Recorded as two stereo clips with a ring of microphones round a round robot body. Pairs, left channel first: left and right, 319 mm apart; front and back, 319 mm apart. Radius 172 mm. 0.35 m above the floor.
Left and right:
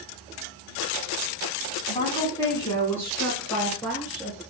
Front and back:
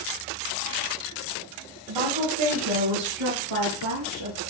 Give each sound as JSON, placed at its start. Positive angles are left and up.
{"t": 1.9, "sound": "a woman speaking", "azimuth_deg": 165, "distance_m": 2.5}